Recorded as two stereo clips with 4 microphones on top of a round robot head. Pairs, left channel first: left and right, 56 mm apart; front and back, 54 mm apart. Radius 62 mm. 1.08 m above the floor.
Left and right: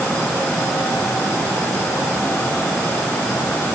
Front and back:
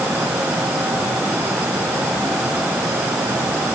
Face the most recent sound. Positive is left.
No sound to turn to.